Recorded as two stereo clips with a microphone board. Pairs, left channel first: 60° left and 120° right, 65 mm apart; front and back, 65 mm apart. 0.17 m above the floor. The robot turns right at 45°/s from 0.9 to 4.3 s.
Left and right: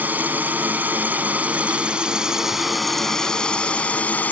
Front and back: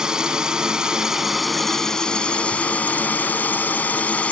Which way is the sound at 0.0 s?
115° right.